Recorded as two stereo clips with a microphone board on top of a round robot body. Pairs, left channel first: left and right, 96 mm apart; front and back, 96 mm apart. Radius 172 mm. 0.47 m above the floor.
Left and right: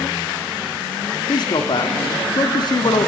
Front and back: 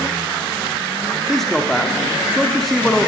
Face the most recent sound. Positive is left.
turn(degrees=85)